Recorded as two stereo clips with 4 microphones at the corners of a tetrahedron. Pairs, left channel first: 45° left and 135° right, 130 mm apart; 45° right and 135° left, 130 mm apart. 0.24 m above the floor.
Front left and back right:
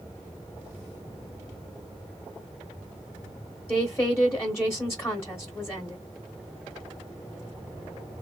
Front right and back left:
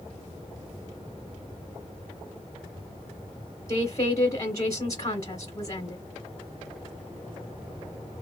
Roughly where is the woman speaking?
Ahead.